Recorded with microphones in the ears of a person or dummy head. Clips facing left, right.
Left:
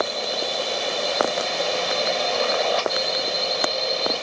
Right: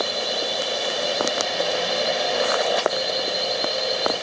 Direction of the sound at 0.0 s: 5° right (ahead or behind).